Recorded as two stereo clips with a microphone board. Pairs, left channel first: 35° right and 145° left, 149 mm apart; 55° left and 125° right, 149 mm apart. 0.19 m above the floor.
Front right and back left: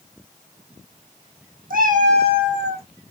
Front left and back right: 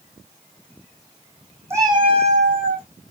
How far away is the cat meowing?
About 1.1 m.